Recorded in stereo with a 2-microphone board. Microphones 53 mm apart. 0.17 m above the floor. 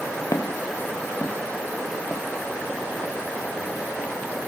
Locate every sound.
0.3 s footsteps: 80° left, 1.2 m; by 4.1 s 55° right (ahead or behind), 2.5 m